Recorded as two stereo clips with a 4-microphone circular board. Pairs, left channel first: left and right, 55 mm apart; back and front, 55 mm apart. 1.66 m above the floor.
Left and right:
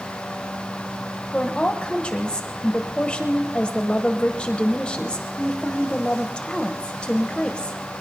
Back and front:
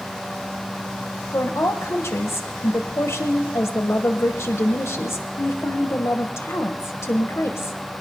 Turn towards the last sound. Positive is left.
turn(degrees=160)